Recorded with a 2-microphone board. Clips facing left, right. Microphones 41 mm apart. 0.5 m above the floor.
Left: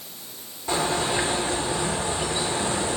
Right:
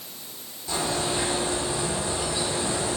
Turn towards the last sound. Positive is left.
turn(degrees=45)  # may be behind; listen again after turning